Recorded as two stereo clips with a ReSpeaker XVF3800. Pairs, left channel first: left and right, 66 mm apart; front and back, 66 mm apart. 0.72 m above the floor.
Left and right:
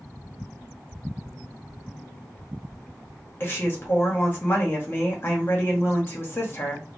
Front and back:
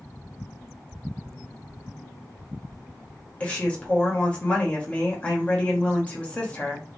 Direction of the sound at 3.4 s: 60° left.